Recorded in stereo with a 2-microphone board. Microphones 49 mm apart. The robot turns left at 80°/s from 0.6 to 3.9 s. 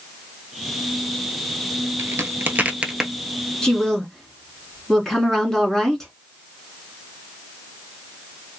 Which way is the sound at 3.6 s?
15° left (ahead or behind).